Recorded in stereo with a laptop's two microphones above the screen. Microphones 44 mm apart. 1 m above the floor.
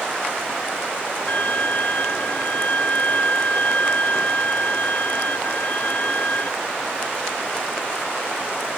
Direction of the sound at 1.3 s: 40° left (ahead or behind).